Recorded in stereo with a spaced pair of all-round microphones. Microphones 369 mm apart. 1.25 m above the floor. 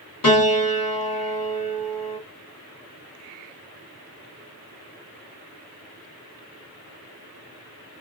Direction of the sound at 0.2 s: 60° left (ahead or behind).